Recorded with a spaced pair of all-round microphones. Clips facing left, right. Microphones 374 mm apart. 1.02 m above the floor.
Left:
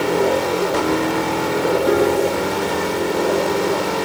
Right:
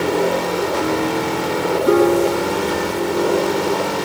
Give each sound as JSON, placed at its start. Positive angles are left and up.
{"t": 1.9, "sound": "a piano", "side_deg": -10, "distance_m": 3.5}